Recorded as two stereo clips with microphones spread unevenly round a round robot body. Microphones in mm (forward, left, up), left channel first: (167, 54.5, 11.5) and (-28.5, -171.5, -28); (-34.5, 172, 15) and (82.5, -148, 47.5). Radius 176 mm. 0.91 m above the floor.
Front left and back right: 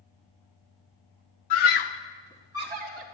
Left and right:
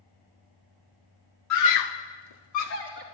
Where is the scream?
65° left, 1.2 m; by 3.0 s 175° left, 1.4 m.